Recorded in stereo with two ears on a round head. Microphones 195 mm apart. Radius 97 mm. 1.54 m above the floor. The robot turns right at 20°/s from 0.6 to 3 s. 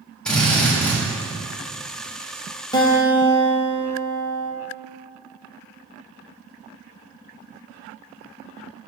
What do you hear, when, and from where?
0.2 s a drill: 5° left (ahead or behind), 2 m; by 1.0 s 15° left (ahead or behind), 2 m
2.7 s a guitar: 20° left (ahead or behind), 1.2 m; by 4.5 s 25° left (ahead or behind), 1.2 m